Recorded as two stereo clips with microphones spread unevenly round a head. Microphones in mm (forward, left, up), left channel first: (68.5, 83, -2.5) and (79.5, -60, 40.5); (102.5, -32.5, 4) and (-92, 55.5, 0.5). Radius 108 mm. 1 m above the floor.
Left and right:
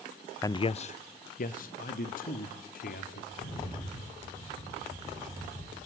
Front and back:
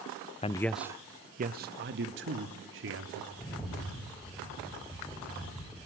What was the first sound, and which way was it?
A man speaking, 35° left.